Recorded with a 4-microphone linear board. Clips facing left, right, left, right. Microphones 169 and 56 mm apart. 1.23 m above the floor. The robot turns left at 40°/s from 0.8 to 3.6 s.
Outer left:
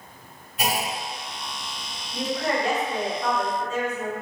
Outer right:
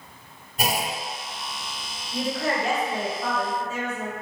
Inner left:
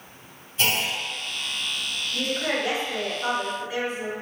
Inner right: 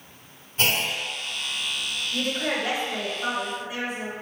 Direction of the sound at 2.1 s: 115° right.